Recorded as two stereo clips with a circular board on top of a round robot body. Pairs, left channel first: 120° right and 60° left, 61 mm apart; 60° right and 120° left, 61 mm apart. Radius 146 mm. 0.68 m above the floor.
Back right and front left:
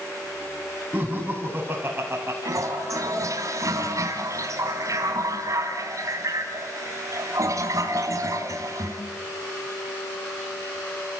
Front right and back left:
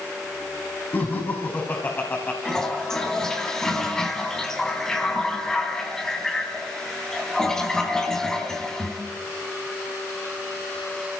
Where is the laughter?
10° right, 5.5 m; by 2.4 s 5° left, 4.5 m.